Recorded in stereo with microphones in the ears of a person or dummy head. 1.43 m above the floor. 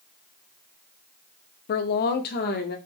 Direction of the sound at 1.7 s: 45° left (ahead or behind).